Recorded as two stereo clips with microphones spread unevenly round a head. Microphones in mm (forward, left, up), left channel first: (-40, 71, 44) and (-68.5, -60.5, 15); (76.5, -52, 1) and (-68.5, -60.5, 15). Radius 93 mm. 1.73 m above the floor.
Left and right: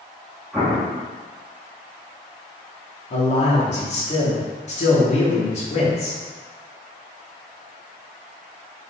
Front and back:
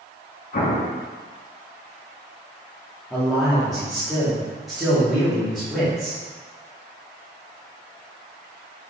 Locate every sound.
0.5 s an explosion: 10° right, 1.0 m
3.1 s a man speaking: 95° left, 1.3 m